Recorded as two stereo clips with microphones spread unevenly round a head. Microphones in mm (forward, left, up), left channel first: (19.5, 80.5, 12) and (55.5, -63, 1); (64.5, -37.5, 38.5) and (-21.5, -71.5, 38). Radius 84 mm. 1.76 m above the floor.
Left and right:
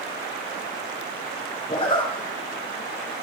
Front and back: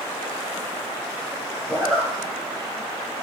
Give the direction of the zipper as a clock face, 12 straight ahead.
9 o'clock.